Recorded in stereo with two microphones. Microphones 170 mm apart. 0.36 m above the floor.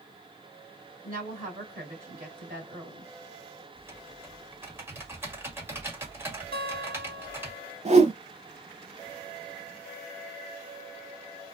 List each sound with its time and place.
1.0 s a woman speaking: 55° right (ahead or behind), 2 m
3.8 s typing on a keyboard: 15° right (ahead or behind), 1.4 m
6.5 s a guitar: 60° right (ahead or behind), 1.8 m
7.8 s a whoosh: 40° right (ahead or behind), 0.6 m